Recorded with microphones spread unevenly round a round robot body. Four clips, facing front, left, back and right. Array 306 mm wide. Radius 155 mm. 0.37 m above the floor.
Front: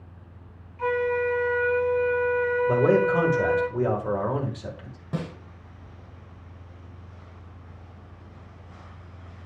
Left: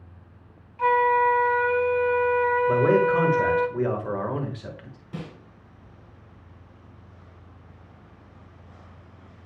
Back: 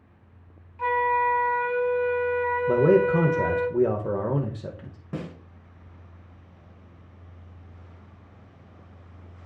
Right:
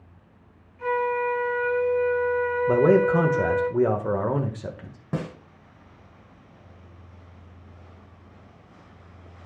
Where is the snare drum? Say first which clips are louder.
Right 7 dB, front 2 dB; 70° right, 1.4 m.